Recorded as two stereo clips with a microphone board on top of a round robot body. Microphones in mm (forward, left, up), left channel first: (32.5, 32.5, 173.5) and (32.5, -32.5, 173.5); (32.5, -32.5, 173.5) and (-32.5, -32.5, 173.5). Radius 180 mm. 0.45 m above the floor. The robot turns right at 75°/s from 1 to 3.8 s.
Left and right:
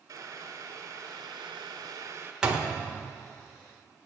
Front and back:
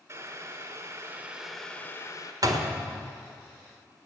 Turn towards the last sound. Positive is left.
turn(degrees=-65)